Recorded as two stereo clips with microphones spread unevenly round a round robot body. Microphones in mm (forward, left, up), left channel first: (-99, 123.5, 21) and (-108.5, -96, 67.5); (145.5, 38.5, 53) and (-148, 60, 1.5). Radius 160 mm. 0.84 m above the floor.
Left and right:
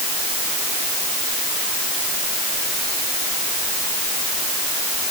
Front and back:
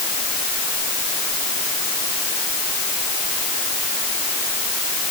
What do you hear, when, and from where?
Only background noise.